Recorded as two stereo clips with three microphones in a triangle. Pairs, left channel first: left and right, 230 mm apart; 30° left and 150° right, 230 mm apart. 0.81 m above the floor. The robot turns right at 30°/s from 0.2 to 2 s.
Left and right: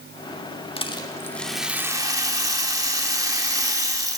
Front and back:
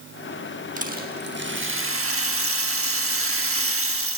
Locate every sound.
0.8 s a rattle: 155° left, 1.0 m; by 4.2 s 165° right, 1.0 m